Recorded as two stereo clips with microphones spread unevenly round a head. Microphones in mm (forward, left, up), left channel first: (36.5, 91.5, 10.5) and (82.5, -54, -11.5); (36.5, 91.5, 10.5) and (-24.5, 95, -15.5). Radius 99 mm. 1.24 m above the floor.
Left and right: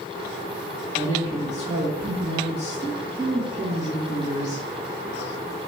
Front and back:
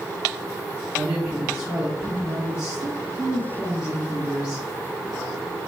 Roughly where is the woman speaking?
Behind right.